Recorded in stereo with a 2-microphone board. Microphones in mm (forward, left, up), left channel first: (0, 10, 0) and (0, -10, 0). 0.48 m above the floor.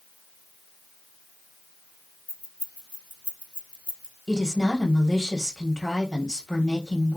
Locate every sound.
2.3 s keys jangling: 70° left (ahead or behind), 2.5 m; by 4.2 s 55° left (ahead or behind), 1.2 m
4.3 s a woman speaking: 35° left (ahead or behind), 3 m